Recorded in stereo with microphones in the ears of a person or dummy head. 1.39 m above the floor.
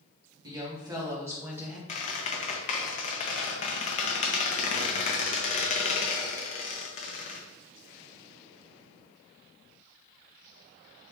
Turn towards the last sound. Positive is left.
turn(degrees=40)  # may be behind; listen again after turning